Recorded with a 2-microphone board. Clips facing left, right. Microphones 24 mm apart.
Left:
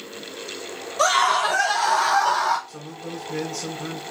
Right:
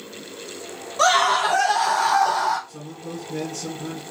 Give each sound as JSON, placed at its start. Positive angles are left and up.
{"t": 1.0, "sound": "a scream", "side_deg": -15, "distance_m": 1.9}
{"t": 2.7, "sound": "a man speaking", "side_deg": 55, "distance_m": 2.0}